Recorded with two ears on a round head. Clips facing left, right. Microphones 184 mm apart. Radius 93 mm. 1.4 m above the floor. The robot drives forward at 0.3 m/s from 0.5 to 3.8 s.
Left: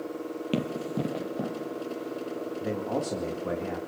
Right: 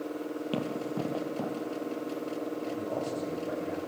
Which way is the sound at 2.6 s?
80° left.